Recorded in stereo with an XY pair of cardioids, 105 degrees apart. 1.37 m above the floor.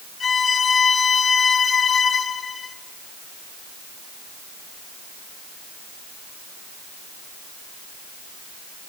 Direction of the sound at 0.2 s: 40° left.